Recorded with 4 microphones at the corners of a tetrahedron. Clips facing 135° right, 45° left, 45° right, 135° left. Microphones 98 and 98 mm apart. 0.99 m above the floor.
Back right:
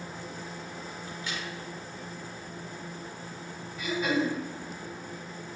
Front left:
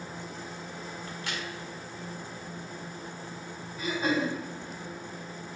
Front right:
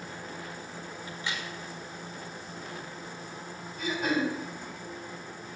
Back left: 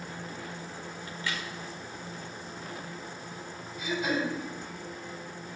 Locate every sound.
1.1 s a crack: 25° left, 1.4 m
3.8 s throat clearing: 10° right, 3 m